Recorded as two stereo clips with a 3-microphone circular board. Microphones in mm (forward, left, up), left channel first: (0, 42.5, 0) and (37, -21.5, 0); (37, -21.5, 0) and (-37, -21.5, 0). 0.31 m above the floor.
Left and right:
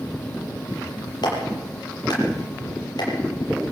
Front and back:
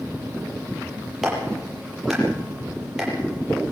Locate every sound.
1.2 s a clap: 95° left, 7.5 m